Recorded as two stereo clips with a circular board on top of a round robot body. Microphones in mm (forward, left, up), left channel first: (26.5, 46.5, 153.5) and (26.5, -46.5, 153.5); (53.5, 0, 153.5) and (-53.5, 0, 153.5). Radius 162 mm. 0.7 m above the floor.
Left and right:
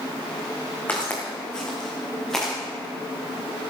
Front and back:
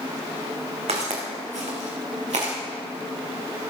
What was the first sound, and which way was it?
Footsteps, 165° left.